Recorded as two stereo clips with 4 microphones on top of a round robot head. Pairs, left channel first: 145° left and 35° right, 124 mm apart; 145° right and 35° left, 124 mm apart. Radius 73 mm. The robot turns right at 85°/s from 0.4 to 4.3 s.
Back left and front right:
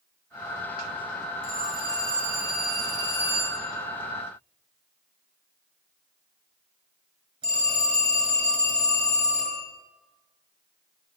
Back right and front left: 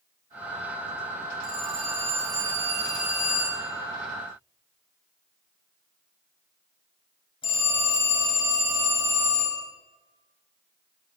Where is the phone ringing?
25° left, 6.5 m; by 9.7 s 90° right, 6.5 m.